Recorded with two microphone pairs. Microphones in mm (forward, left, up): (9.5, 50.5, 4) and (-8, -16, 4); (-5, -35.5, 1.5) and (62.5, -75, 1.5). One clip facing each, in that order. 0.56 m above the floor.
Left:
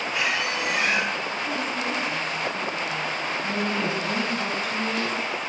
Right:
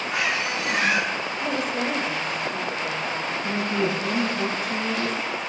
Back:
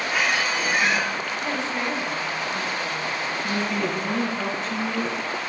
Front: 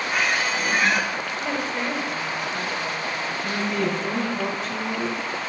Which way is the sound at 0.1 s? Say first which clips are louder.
Right 1 dB, even; 70° right.